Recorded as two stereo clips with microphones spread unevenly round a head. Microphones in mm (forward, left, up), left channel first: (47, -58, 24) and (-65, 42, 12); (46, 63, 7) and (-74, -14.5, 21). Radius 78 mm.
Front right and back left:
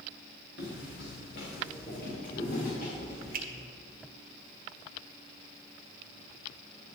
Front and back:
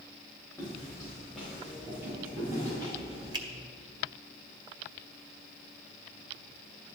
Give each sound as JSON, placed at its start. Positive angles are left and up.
{"t": 0.6, "sound": "footsteps", "azimuth_deg": -45, "distance_m": 4.0}
{"t": 3.3, "sound": "a finger snap", "azimuth_deg": 150, "distance_m": 1.4}